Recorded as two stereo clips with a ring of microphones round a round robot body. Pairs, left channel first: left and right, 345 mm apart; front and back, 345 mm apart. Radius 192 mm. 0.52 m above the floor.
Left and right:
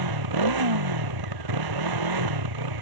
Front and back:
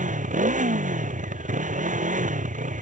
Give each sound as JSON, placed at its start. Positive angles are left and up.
{"t": 0.0, "sound": "a motorcycle", "azimuth_deg": -110}